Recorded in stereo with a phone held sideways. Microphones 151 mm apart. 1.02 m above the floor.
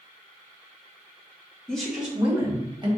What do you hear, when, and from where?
1.7 s a woman speaking: 5° left (ahead or behind), 1.4 m; by 2.9 s 30° right (ahead or behind), 1.3 m